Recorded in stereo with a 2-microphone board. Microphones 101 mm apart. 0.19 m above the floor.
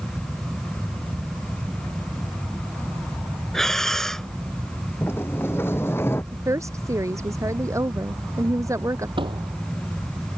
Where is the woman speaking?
30° right (ahead or behind).